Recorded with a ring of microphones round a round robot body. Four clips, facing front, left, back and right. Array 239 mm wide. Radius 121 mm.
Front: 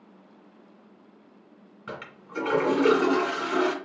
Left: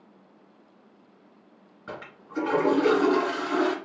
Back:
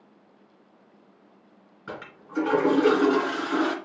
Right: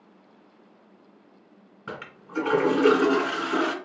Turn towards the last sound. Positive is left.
turn(degrees=-80)